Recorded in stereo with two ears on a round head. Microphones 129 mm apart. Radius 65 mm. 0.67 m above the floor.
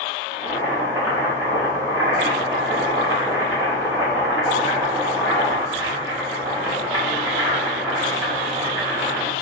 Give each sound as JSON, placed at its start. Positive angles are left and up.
{"t": 0.3, "sound": "boiling", "side_deg": -20, "distance_m": 1.9}